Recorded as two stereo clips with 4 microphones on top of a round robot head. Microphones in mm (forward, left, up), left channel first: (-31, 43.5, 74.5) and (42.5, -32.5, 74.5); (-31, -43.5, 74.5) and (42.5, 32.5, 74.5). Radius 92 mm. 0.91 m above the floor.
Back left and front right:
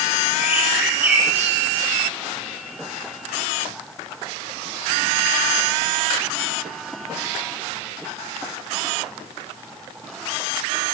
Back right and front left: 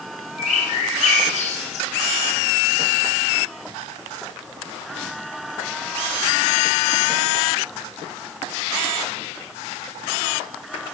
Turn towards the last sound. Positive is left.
turn(degrees=-120)